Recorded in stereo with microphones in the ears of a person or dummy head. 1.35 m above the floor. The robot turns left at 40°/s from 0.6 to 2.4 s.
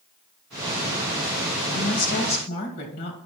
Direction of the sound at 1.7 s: 75° left (ahead or behind).